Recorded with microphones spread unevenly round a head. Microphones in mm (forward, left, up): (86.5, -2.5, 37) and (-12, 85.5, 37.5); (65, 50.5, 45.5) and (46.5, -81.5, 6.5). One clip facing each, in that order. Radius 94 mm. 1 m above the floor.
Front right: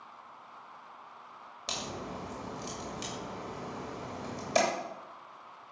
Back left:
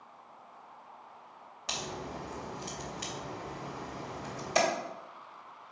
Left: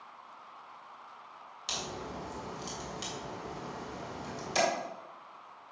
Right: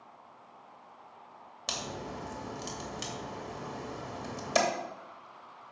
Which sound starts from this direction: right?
A crack, at 1.7 s.